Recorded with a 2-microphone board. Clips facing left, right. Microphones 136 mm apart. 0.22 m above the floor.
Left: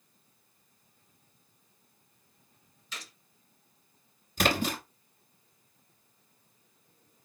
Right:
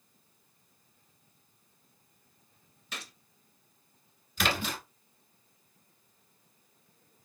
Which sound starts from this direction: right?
A gunshot, at 2.9 s.